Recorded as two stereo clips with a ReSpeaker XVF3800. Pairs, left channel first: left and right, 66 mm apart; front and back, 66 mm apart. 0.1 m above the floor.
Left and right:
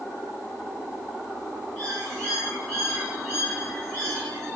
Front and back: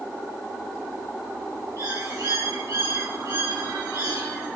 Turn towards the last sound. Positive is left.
turn(degrees=165)